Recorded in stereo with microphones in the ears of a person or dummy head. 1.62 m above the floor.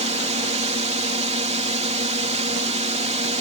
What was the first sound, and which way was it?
A drone, 30° right (ahead or behind).